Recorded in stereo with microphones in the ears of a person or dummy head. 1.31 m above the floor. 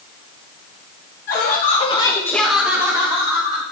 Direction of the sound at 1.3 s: 45° left (ahead or behind).